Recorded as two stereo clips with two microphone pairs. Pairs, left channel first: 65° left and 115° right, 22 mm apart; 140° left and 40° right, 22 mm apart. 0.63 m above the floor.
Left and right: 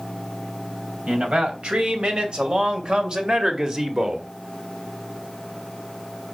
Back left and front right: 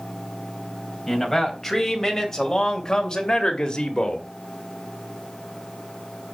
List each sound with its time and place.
1.1 s a man speaking: 140° right, 3.5 m; by 4.3 s 175° right, 2 m